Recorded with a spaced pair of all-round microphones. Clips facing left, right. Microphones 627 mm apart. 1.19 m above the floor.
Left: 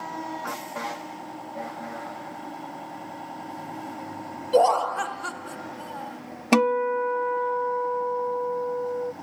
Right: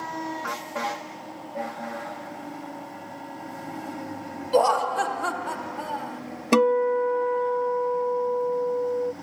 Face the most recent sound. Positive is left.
turn(degrees=20)  # may be behind; listen again after turning